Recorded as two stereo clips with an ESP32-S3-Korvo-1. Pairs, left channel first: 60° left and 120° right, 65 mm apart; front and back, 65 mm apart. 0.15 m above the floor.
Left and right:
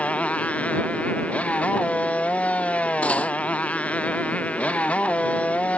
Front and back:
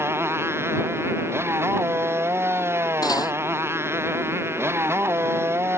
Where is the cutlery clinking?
10° right.